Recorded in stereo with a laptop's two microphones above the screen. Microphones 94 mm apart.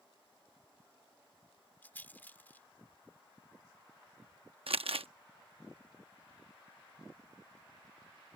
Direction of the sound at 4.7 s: 80° right.